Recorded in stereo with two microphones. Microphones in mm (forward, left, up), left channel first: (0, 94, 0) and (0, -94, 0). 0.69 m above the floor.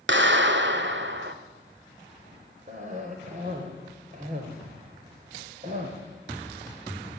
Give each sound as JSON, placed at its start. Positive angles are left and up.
{"t": 0.1, "sound": "a clap", "side_deg": -65, "distance_m": 1.7}
{"t": 2.7, "sound": "a cough", "side_deg": -40, "distance_m": 3.5}